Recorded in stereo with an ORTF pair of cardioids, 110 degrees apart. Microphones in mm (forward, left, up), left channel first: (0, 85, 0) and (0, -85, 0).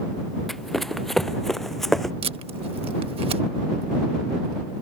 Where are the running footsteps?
Straight ahead.